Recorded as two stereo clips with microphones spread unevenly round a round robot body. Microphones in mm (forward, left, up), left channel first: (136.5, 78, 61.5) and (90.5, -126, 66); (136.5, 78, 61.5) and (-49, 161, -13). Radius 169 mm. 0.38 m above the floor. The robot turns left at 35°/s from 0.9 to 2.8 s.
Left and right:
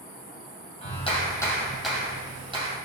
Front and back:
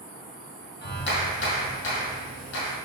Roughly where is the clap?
Ahead.